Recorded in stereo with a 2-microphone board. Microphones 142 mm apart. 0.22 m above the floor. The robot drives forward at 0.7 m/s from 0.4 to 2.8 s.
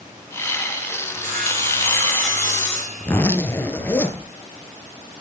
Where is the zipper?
15° left (ahead or behind), 0.9 m.